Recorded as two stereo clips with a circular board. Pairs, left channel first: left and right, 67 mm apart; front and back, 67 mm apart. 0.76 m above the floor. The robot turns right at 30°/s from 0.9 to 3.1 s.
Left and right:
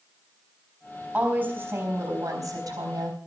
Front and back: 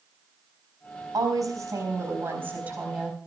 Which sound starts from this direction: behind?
A woman speaking, at 1.1 s.